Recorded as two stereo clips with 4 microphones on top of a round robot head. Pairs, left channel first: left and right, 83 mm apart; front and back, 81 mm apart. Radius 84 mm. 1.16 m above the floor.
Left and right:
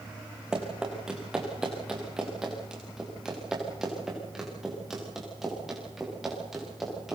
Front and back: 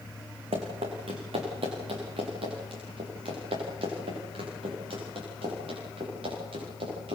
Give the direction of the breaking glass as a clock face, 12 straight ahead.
I don't hear breaking glass.